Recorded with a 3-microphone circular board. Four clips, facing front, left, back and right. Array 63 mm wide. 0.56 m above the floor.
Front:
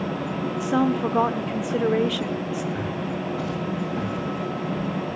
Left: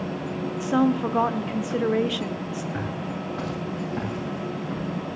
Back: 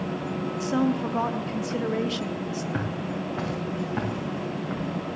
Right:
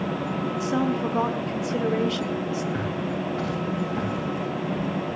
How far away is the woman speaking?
About 0.8 m.